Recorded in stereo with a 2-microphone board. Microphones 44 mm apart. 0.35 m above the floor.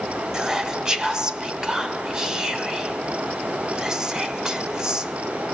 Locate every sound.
0.3 s whispering: 15° right (ahead or behind), 1.3 m